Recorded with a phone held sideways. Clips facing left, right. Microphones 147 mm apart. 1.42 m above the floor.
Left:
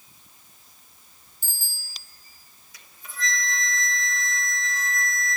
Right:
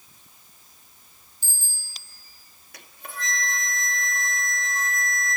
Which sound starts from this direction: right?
A flute, at 2.7 s.